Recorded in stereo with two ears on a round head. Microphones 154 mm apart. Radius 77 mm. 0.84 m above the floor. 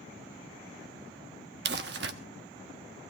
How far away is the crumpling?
About 1.1 m.